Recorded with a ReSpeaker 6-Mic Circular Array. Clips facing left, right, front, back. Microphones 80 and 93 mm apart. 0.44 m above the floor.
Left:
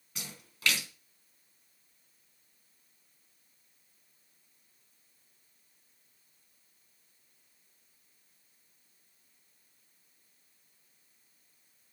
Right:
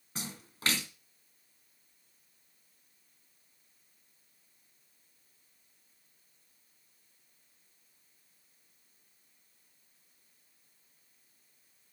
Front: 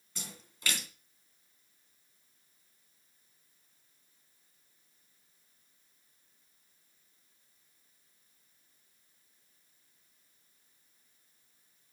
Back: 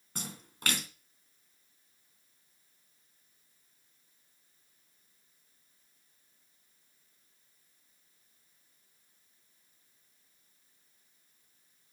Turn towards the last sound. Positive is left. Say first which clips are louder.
# right 5 dB, back 5 dB
turn(degrees=-145)